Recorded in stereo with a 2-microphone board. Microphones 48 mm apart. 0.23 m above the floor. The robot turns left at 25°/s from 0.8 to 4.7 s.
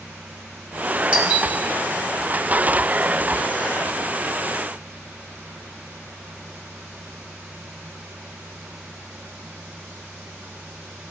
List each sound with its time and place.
1.1 s a doorbell: 20° right (ahead or behind), 2.5 m; by 1.5 s 25° right (ahead or behind), 2.5 m